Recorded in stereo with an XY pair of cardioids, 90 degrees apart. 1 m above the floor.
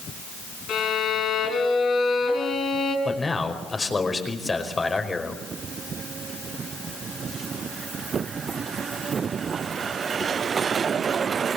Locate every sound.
0.7 s a violin: 70° left, 6 m
3.0 s a man speaking: 30° left, 5 m